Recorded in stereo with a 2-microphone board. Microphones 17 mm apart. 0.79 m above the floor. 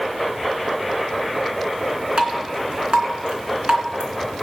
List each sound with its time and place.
2.2 s dripping: 75° right (ahead or behind), 2.5 m